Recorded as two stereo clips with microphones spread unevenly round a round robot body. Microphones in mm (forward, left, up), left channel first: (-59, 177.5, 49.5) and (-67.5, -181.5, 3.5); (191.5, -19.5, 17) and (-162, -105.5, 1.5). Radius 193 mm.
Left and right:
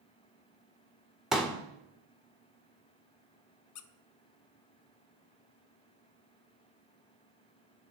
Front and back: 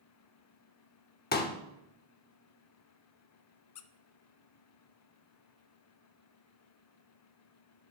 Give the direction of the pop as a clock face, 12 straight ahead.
1 o'clock.